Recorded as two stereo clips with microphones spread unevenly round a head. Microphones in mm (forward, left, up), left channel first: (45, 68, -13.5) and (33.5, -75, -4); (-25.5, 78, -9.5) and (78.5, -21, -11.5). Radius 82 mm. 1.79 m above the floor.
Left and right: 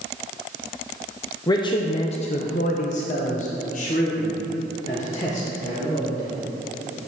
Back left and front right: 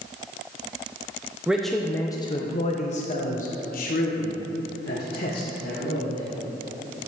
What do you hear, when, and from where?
1.5 s a man speaking: 35° left, 0.6 m; by 6.4 s 135° left, 2.5 m